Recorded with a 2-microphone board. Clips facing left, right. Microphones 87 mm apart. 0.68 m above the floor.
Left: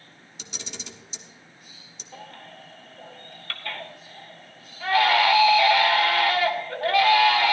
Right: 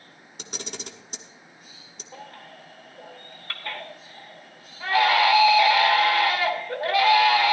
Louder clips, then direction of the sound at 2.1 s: Even; 25° right (ahead or behind).